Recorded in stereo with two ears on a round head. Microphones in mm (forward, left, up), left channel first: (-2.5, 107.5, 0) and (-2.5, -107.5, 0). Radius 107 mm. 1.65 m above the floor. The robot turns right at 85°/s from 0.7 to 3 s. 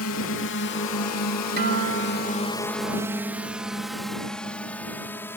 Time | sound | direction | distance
0.0 | a drone | 65° left (ahead or behind) | ?
1.6 | a guitar | 140° right | ?